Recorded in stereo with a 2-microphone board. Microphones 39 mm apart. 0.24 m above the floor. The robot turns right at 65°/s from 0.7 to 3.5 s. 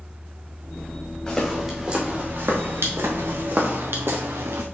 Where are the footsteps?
20° left (ahead or behind), 4 m; by 4.7 s 80° right, 1.6 m.